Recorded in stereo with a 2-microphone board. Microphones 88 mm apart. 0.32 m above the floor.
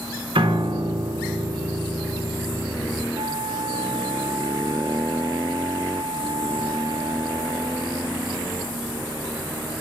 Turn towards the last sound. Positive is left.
turn(degrees=-75)  # may be behind; listen again after turning